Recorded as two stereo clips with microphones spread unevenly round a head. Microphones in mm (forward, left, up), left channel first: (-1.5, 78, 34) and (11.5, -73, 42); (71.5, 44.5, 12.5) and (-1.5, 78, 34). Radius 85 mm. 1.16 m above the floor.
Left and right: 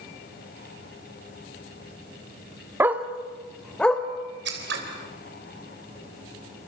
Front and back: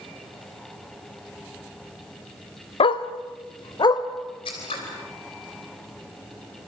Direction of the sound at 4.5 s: 70° right.